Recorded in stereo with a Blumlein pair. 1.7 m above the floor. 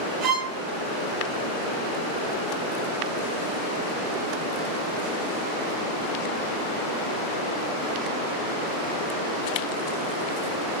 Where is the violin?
30° right, 1.1 m.